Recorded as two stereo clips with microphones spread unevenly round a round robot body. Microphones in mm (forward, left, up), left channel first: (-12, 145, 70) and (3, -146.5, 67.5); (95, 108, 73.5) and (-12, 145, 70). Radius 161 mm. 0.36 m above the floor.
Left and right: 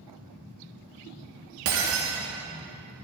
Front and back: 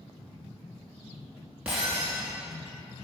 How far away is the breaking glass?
About 2.5 m.